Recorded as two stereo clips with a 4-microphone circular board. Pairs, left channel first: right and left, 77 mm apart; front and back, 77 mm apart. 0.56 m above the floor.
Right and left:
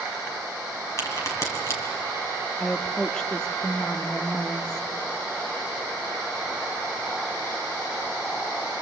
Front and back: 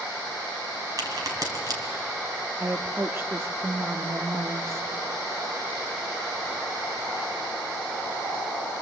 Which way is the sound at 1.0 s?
140° right.